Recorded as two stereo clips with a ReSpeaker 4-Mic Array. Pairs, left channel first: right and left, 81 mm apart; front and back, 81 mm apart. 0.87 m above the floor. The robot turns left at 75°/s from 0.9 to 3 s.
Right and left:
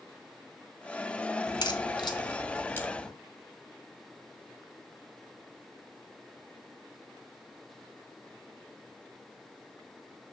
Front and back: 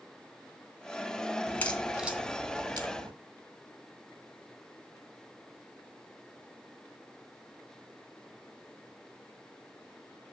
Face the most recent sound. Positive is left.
turn(degrees=-170)